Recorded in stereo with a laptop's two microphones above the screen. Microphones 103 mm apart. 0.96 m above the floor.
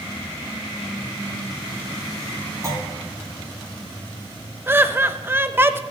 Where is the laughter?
20° right (ahead or behind), 0.8 m.